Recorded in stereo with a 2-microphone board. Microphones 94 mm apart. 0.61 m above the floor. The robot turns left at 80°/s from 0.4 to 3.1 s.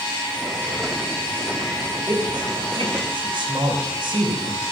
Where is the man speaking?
35° right (ahead or behind), 3 m; by 4.6 s 55° right (ahead or behind), 3 m.